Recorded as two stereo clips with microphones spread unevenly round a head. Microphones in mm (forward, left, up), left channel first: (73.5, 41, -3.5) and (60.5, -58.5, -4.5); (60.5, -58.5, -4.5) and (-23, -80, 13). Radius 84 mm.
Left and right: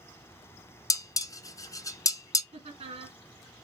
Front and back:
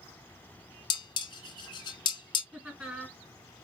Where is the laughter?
85° right, 3 m.